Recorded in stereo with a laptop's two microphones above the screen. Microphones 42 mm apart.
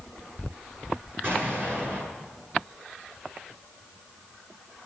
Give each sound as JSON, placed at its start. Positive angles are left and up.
{"t": 1.2, "sound": "an explosion", "side_deg": -55, "distance_m": 8.0}